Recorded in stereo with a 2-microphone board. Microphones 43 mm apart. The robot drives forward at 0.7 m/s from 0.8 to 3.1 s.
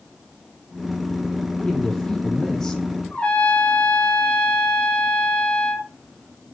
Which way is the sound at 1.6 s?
20° left (ahead or behind).